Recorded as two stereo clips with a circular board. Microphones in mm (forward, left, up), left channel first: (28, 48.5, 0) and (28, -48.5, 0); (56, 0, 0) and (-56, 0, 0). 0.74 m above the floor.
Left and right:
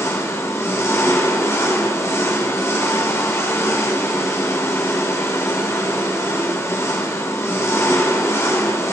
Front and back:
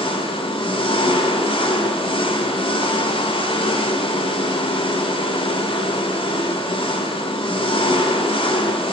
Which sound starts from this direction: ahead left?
An engine running, at 0.0 s.